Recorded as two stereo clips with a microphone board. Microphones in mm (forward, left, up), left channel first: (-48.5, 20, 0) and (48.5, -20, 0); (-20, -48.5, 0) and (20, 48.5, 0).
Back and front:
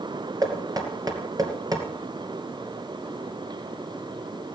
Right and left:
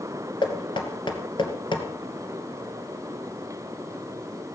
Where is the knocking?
75° right, 2.5 m.